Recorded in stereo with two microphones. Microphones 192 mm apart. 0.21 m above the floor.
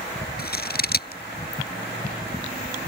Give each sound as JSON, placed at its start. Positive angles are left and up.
{"t": 0.4, "sound": "scissors", "side_deg": 55}